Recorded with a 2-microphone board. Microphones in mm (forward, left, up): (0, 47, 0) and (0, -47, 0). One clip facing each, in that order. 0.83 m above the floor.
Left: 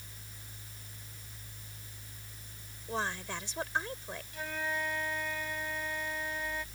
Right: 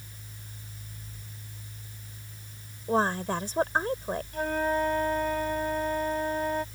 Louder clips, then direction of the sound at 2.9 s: Right 10 dB; 45° right (ahead or behind).